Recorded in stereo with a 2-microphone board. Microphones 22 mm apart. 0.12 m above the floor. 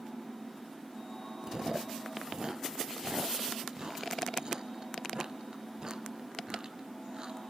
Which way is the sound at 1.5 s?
40° right (ahead or behind).